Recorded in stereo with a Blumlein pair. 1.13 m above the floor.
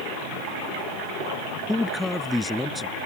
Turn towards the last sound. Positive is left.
turn(degrees=5)